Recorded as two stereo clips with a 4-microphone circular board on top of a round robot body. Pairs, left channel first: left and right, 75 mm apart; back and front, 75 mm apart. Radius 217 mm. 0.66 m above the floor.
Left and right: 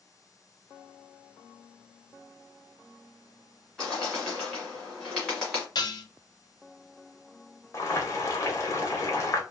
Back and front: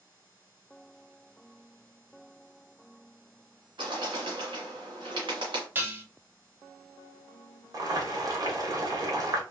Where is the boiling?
40° left, 0.9 m.